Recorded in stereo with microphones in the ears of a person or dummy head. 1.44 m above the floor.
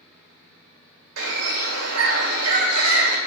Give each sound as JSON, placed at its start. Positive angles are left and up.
{"t": 0.0, "sound": "a fan", "side_deg": 5, "distance_m": 4.5}
{"t": 1.2, "sound": "a bird", "side_deg": -75, "distance_m": 2.5}